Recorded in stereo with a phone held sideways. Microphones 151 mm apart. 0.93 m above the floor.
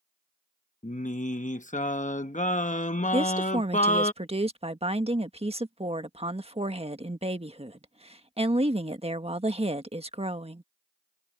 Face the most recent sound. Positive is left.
turn(degrees=-40)  # may be behind; listen again after turning